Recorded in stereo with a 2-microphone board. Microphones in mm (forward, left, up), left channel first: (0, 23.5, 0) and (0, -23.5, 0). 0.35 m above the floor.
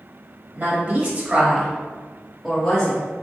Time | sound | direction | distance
0.6 | a woman speaking | 45° right (ahead or behind) | 1.6 m